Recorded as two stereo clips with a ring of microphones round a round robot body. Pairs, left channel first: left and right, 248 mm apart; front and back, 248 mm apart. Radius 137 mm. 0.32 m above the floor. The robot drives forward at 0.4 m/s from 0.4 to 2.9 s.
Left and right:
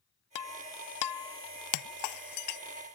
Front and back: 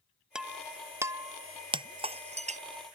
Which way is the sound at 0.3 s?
95° left.